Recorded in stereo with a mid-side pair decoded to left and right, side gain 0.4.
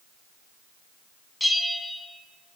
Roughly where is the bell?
Ahead.